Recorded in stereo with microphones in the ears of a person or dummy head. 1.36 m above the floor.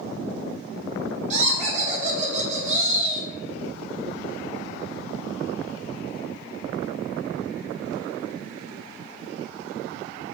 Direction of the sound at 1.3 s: 40° right (ahead or behind).